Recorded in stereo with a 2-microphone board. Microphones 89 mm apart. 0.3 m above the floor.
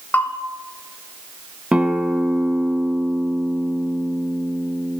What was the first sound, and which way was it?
A bell, 20° left (ahead or behind).